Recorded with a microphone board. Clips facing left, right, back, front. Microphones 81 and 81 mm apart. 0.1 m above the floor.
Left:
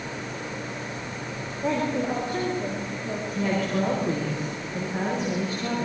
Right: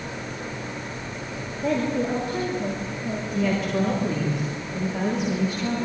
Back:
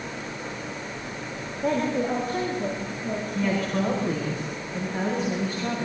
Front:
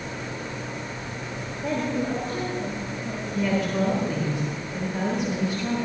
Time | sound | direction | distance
1.6 | a woman speaking | 150° left | 8 m
3.4 | a woman speaking | 135° left | 9 m